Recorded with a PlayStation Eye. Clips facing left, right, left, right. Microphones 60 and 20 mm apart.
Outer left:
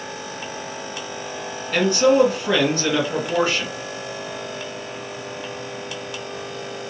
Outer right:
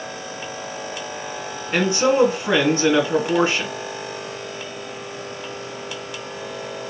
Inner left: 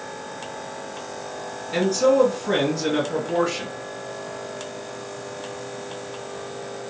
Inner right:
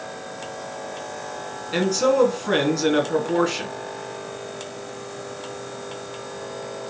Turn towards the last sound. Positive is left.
turn(degrees=-25)  # may be behind; listen again after turning